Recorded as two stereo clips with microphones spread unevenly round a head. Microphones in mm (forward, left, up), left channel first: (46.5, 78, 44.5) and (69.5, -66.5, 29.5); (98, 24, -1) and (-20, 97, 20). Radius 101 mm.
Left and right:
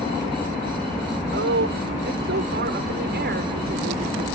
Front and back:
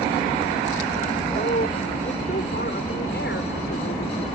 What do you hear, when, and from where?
1.3 s a woman speaking: 90° right; by 4.3 s 65° right